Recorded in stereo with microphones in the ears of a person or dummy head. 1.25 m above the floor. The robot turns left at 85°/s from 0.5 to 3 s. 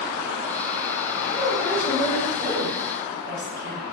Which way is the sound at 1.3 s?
20° right.